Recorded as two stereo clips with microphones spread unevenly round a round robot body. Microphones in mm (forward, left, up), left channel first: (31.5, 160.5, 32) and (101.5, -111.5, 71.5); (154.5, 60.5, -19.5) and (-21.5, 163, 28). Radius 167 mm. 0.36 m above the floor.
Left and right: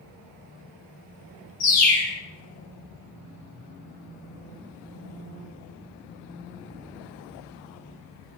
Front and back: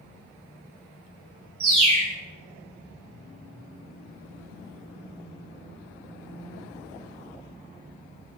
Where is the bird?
140° left, 1.9 m.